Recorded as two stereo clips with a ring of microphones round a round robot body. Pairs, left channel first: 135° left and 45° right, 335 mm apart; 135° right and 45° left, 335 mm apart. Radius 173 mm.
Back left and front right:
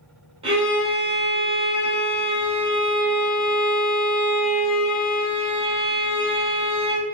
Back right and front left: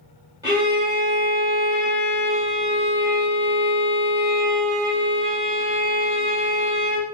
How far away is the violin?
About 1.4 m.